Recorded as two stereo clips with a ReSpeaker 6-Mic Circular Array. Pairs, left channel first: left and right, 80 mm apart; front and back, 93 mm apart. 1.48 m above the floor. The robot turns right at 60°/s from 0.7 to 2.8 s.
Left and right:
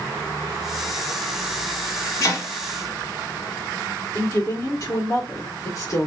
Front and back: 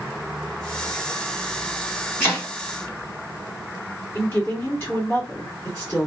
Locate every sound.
2.2 s chopping: 55° left, 1.8 m; by 2.5 s 70° left, 1.8 m
4.2 s a woman speaking: 60° left, 1.3 m